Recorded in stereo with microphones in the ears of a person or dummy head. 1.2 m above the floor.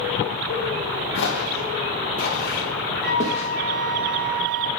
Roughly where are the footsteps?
Left.